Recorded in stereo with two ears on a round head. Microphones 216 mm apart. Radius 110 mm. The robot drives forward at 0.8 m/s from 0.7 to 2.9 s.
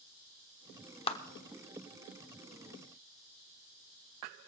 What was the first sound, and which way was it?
A clap, 25° left (ahead or behind).